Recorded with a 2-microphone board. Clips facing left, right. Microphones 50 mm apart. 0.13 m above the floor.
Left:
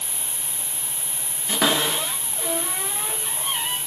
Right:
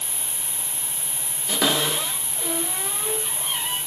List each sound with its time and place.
0.0 s an insect: 20° right (ahead or behind), 1.2 m
1.5 s a cupboard door: 15° left (ahead or behind), 1.1 m